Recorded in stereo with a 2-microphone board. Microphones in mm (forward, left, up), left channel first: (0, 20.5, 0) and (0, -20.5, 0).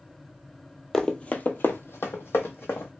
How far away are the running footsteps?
About 0.6 m.